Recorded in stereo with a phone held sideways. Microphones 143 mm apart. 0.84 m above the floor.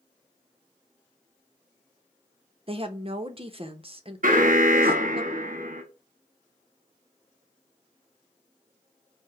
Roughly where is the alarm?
Right.